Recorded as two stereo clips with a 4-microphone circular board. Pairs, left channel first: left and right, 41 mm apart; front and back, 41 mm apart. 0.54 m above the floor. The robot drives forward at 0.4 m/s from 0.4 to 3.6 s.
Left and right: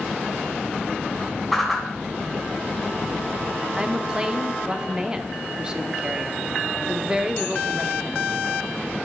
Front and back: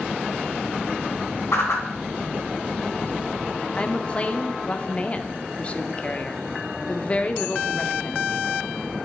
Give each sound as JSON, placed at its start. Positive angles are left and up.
{"t": 1.5, "sound": "a whoosh", "azimuth_deg": 0, "distance_m": 2.5}
{"t": 3.8, "sound": "a woman speaking", "azimuth_deg": -30, "distance_m": 0.7}